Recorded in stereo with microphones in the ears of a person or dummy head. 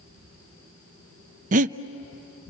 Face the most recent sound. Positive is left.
turn(degrees=-40)  # may be behind; listen again after turning